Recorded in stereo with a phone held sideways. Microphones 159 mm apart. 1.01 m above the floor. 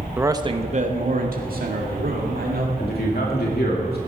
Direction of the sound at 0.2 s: 10° right (ahead or behind).